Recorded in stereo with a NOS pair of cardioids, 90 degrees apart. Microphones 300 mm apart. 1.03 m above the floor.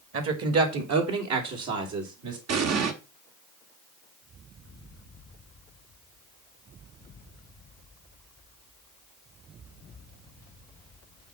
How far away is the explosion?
About 1.3 m.